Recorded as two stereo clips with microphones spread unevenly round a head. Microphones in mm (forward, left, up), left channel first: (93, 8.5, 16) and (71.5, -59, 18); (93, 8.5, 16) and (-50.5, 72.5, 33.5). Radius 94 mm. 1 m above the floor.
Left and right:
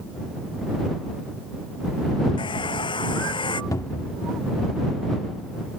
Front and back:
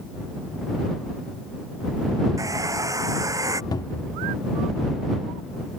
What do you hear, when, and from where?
2.4 s a hair dryer: 85° left
3.7 s a cupboard door: 45° left